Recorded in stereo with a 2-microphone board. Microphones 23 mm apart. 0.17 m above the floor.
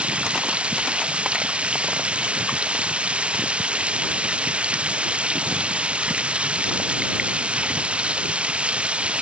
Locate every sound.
0.0 s running water: 50° right (ahead or behind)